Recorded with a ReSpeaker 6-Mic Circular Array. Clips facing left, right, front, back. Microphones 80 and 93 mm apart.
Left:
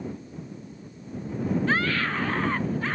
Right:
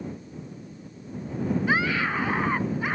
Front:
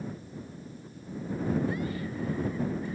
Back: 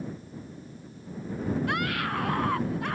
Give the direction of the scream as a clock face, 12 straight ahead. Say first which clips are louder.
Right 1 dB, back 4 dB; 6 o'clock.